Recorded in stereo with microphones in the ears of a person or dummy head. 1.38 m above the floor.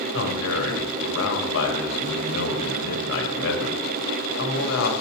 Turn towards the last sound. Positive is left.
turn(degrees=85)